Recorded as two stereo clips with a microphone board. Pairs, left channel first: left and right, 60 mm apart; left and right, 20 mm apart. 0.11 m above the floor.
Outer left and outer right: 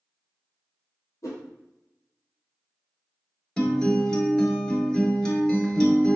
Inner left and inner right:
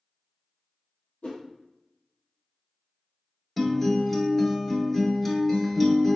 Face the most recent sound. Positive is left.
turn(degrees=10)  # may be behind; listen again after turning